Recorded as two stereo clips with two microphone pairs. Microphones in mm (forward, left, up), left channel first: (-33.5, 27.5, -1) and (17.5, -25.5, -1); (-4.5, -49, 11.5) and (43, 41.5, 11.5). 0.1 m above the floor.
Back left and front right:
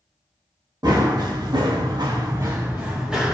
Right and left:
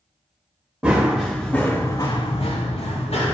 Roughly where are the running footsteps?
Ahead.